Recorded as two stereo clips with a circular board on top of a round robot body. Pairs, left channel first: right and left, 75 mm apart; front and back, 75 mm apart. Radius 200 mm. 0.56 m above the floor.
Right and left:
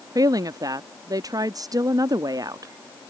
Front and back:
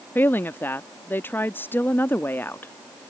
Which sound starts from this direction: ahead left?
A woman speaking, at 0.1 s.